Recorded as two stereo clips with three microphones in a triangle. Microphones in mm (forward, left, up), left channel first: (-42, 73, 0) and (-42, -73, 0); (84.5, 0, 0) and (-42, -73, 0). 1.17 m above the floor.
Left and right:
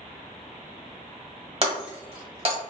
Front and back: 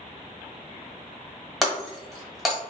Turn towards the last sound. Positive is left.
turn(degrees=-60)